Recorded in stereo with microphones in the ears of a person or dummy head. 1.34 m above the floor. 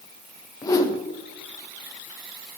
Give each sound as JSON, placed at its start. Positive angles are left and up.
{"t": 0.6, "sound": "a whoosh", "side_deg": 25, "distance_m": 1.2}